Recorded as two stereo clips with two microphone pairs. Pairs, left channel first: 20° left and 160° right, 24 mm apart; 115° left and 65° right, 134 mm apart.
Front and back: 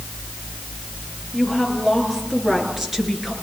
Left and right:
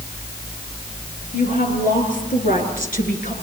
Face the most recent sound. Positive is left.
turn(degrees=120)